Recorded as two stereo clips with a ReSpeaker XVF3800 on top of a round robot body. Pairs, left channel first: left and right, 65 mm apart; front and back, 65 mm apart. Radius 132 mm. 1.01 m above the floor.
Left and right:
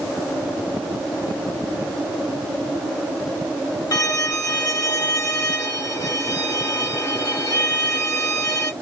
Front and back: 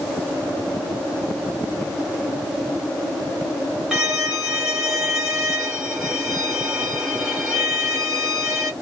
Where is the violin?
105° left, 1.8 m.